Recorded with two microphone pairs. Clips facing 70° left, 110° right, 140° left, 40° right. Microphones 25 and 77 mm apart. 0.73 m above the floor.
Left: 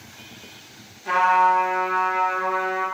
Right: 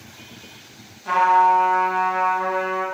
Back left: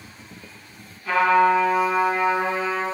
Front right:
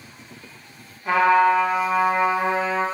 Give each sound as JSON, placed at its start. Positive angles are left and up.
{"t": 1.1, "sound": "a trumpet", "azimuth_deg": -30, "distance_m": 0.9}